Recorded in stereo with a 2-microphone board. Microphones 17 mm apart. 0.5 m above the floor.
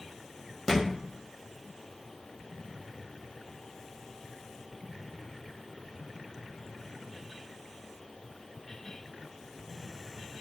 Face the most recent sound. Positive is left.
turn(degrees=20)  # may be behind; listen again after turning